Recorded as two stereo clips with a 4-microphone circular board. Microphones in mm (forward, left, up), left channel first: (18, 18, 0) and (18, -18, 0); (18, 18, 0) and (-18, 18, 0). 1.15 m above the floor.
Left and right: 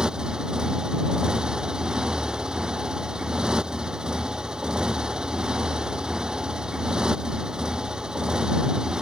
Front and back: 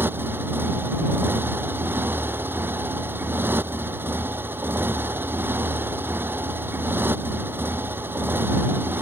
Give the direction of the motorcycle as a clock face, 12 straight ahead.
5 o'clock.